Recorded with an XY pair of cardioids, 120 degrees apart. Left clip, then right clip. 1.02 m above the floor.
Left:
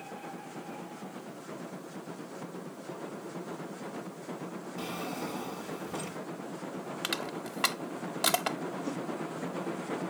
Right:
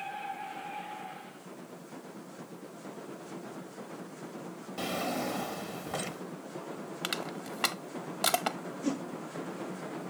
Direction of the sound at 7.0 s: 5° right.